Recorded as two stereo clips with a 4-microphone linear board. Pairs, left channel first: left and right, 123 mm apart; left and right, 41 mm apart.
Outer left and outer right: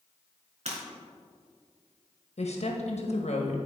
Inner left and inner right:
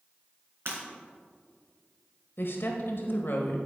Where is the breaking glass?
65° right (ahead or behind), 3 m.